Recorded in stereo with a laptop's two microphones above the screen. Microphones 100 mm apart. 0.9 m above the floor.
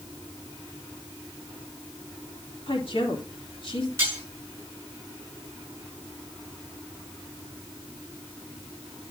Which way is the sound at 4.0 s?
20° right (ahead or behind).